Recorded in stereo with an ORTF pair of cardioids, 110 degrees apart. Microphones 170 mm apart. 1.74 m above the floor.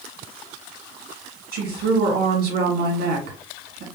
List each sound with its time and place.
1.5 s a woman speaking: 70° right, 2 m